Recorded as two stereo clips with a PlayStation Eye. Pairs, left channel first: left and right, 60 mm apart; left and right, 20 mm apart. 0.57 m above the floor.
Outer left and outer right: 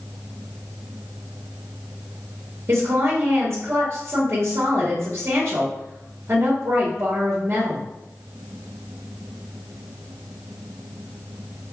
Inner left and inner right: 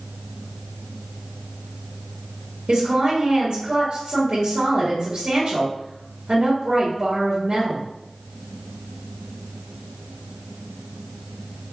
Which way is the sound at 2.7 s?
45° right (ahead or behind).